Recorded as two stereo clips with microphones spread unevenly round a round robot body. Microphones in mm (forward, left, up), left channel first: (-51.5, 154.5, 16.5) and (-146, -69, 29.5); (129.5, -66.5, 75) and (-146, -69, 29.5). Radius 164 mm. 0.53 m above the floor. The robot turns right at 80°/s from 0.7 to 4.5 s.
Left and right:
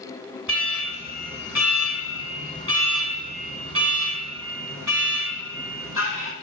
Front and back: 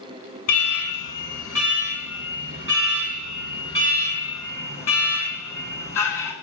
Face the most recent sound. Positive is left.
turn(degrees=-80)